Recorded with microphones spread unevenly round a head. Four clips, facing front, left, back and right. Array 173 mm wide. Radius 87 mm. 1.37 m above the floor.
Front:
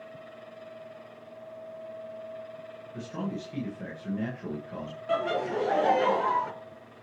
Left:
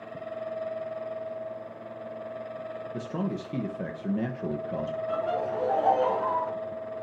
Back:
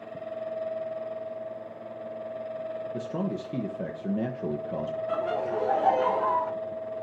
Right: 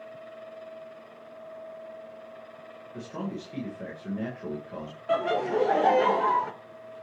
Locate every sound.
2.9 s a man speaking: 165° left, 1.5 m
5.1 s laughter: 80° right, 1.6 m